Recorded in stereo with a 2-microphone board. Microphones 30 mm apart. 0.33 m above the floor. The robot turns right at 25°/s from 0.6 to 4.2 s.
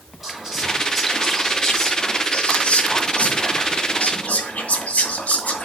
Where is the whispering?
15° right, 2 m; by 5.7 s 75° left, 2 m.